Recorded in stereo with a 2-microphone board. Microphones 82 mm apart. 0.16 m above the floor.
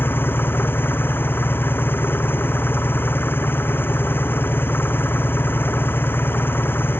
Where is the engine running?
25° left (ahead or behind).